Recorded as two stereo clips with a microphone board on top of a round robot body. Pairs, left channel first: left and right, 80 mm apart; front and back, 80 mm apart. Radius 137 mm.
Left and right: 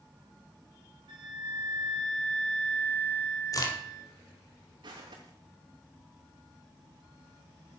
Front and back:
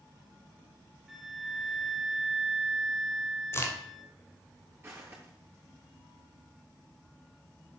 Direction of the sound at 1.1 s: 95° right.